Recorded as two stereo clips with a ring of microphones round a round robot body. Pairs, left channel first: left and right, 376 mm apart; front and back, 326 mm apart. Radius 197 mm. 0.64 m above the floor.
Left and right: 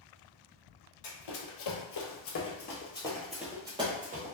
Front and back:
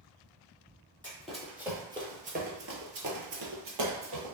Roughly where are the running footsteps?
Left.